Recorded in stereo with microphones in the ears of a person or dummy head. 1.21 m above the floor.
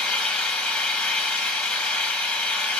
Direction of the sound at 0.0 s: 5° left (ahead or behind).